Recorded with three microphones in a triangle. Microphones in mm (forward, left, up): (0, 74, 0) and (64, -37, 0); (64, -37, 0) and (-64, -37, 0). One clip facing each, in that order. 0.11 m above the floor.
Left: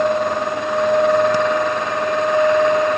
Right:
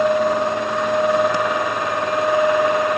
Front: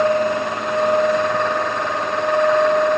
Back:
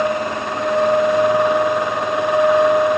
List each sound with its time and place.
Only background noise.